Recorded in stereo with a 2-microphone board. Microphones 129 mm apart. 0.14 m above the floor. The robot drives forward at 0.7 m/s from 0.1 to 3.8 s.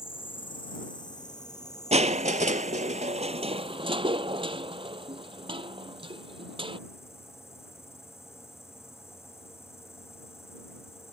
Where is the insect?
45° left (ahead or behind); by 11.1 s 20° left (ahead or behind).